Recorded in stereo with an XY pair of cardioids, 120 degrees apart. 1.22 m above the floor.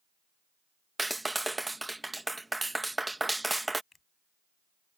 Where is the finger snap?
25° left.